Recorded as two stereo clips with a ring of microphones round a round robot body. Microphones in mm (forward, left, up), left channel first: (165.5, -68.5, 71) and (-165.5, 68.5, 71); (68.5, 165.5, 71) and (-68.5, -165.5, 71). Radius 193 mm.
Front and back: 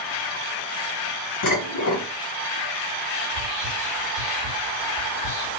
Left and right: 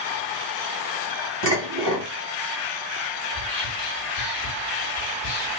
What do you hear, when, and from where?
1.4 s dishes clattering: 85° right, 1.8 m
3.3 s whispering: 80° right, 1.8 m